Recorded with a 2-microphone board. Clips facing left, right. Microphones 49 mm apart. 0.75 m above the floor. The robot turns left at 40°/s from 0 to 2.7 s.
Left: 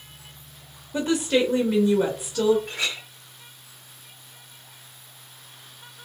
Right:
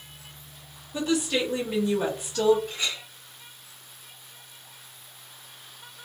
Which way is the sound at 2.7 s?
75° left (ahead or behind).